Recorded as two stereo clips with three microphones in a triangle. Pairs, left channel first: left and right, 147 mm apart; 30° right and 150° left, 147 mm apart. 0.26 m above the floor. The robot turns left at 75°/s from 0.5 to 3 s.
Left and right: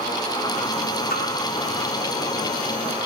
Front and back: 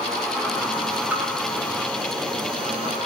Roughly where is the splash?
Left.